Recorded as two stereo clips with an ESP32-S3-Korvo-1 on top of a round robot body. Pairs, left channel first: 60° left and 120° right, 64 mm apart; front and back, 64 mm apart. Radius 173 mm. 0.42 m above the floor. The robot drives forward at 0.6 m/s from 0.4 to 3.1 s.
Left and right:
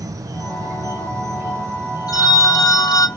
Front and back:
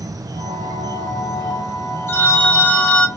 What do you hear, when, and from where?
0.0 s an insect: 150° right, 0.9 m; by 3.2 s 170° right, 2.5 m
2.1 s a phone ringing: 50° left, 1.6 m; by 3.1 s 75° left, 1.3 m